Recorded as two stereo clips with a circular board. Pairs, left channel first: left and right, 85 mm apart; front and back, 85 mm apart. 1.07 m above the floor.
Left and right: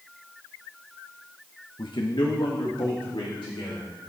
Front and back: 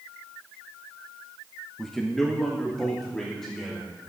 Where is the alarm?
I don't hear an alarm.